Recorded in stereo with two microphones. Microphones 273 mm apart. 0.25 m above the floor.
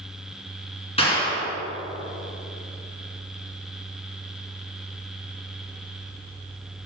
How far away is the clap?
About 2.5 m.